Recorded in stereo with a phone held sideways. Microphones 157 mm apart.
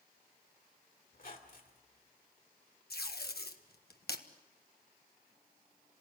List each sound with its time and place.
1.1 s a squeak: 65° left (ahead or behind), 2.5 m
2.9 s tape being pulled: 80° left, 1.3 m